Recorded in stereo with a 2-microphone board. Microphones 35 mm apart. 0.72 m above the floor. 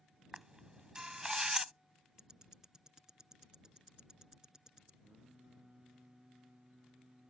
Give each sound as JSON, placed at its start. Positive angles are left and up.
{"t": 0.3, "sound": "a camera shutter", "side_deg": -20}
{"t": 2.2, "sound": "ticking", "side_deg": -20}
{"t": 5.0, "sound": "singing", "side_deg": -30}